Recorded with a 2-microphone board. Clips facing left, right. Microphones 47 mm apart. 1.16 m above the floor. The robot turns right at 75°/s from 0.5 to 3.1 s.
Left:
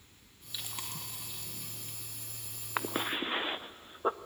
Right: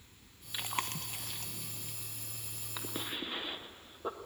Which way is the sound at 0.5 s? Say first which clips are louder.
Right 6 dB; 35° right (ahead or behind).